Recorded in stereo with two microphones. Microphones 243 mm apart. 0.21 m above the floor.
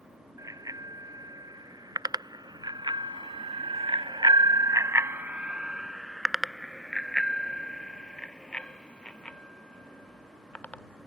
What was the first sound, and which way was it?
A bicycle bell, 15° right (ahead or behind).